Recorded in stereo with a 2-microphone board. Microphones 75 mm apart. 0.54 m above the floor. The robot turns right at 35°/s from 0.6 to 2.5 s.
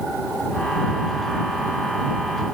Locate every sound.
Only background noise.